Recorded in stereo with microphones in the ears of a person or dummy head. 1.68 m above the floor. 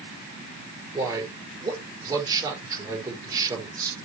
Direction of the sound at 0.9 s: 20° right (ahead or behind).